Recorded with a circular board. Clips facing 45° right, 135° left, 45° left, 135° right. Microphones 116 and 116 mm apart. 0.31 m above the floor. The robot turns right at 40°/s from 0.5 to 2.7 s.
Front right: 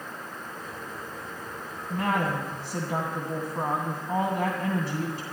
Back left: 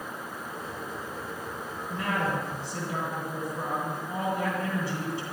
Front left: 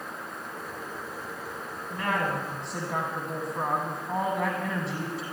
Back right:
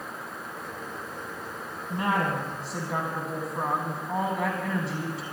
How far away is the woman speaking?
About 2.5 m.